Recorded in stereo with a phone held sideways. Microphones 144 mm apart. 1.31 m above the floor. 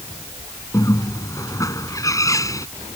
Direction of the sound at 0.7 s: 20° left (ahead or behind).